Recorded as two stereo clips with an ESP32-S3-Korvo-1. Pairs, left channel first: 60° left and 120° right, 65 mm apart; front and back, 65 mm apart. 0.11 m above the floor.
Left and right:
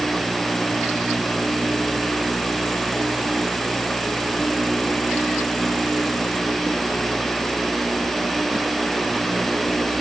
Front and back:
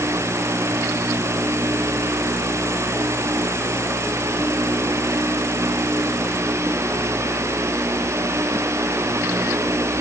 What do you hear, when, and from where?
Only background noise.